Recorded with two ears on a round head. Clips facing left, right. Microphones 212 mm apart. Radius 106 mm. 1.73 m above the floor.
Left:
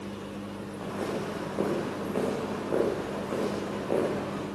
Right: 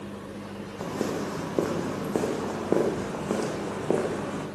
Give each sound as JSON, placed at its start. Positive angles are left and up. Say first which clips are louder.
{"t": 0.8, "sound": "footsteps", "louder": "right 3 dB", "side_deg": -60, "distance_m": 6.5}